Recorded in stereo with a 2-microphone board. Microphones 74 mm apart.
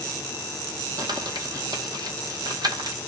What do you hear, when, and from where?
1.0 s crumpling: 65° right (ahead or behind), 0.9 m